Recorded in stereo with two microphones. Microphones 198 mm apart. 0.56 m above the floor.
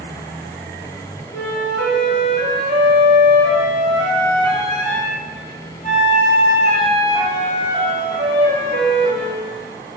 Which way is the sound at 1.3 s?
45° left (ahead or behind).